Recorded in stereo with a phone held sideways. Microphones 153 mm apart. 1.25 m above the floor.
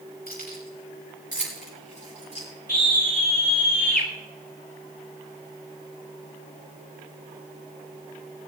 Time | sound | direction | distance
0.3 | keys jangling | 75° left (ahead or behind) | 6 m
2.7 | a scream | 75° left (ahead or behind) | 7.5 m